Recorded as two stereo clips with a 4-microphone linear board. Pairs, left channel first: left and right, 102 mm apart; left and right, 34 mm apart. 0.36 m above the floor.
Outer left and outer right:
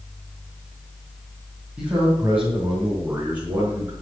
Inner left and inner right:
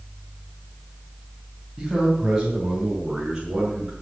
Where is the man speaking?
10° right (ahead or behind), 3.5 m; by 3.9 s 20° right (ahead or behind), 4.5 m.